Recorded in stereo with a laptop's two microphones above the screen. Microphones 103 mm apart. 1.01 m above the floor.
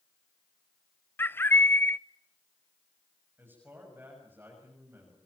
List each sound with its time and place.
1.2 s a bird: 20° left (ahead or behind), 0.6 m
3.4 s a man speaking: 20° right (ahead or behind), 7 m